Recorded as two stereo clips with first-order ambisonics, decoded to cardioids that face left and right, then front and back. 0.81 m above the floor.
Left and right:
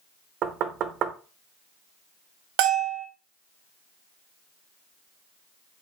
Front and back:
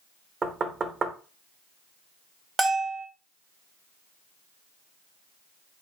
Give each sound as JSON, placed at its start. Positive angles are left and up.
{"t": 0.4, "sound": "knocking", "azimuth_deg": -120, "distance_m": 0.6}
{"t": 2.6, "sound": "a bell", "azimuth_deg": -105, "distance_m": 0.7}